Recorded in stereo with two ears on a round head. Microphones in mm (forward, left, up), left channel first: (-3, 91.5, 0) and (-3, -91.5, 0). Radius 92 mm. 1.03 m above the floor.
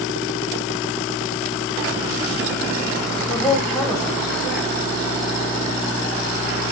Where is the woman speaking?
5° left (ahead or behind), 1.3 m.